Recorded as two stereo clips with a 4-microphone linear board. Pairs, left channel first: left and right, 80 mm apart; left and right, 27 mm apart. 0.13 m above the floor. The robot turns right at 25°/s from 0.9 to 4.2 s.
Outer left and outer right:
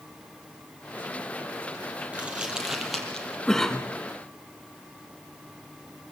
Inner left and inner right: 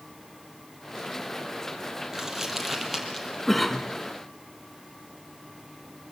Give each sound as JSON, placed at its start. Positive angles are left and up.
{"t": 2.1, "sound": "crumpling", "side_deg": -20, "distance_m": 3.5}
{"t": 3.5, "sound": "a cough", "side_deg": 5, "distance_m": 1.3}